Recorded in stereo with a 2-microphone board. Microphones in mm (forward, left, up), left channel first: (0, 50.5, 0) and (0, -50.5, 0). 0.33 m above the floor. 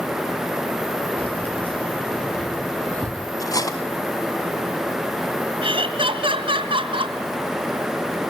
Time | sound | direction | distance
1.2 | keys jangling | 10° left (ahead or behind) | 5 m
3.4 | cutlery clinking | 35° left (ahead or behind) | 1.4 m
5.6 | laughter | 60° right (ahead or behind) | 3 m